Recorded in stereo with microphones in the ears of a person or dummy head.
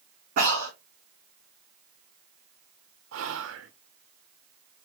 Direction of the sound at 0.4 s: 45° right (ahead or behind).